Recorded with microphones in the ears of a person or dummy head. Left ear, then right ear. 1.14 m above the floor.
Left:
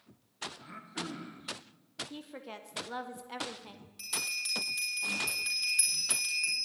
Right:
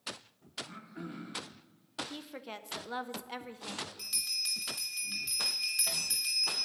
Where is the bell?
10° left (ahead or behind), 3 m.